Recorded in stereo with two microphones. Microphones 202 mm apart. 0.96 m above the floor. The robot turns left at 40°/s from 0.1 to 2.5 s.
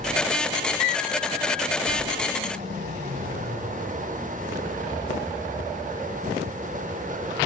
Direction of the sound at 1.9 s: 50° left (ahead or behind).